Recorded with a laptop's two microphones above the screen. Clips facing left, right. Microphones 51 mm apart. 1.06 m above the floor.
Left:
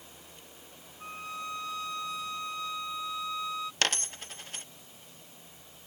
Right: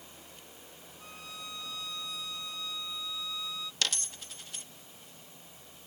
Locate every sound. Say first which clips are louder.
1.0 s a violin: left 8 dB; 40° left (ahead or behind)
3.8 s a dropped coin: left 3 dB; 50° left (ahead or behind)